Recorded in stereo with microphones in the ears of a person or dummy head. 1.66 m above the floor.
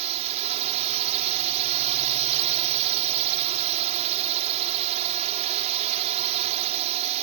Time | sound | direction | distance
0.0 | a drone | 35° right (ahead or behind) | ?